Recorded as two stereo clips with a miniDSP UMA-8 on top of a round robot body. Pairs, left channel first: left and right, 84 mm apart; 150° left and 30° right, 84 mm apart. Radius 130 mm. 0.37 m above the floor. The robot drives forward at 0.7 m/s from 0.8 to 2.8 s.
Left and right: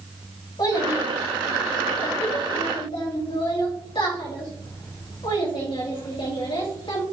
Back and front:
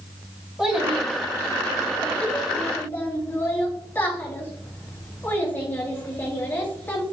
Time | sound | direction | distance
0.6 | a child speaking | 55° left | 2.5 m